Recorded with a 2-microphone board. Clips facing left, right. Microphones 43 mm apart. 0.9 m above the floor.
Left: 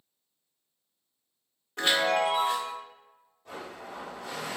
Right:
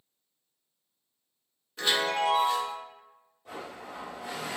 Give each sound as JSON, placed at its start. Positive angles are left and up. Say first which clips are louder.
{"t": 1.8, "sound": "a chime", "louder": "left 2 dB", "side_deg": 70, "distance_m": 1.3}
{"t": 3.5, "sound": "a blender", "louder": "even", "side_deg": -10, "distance_m": 1.2}